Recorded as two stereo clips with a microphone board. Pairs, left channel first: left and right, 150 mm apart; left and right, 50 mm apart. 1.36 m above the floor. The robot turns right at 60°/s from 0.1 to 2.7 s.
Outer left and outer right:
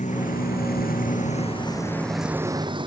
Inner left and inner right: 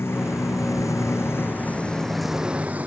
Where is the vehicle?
55° left (ahead or behind); by 2.9 s 30° right (ahead or behind).